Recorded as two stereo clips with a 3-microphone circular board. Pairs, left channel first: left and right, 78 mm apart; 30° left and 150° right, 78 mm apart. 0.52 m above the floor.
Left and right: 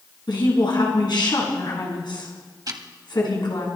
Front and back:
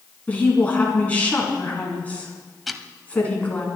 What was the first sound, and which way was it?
A woman speaking, 100° left.